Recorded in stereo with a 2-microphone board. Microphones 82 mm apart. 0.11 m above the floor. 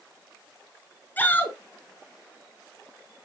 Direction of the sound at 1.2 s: 20° left (ahead or behind).